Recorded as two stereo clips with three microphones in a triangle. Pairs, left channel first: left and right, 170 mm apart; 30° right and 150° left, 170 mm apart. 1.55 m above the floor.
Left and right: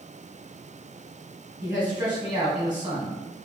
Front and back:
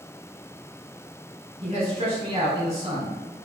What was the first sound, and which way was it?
A man speaking, 155° right.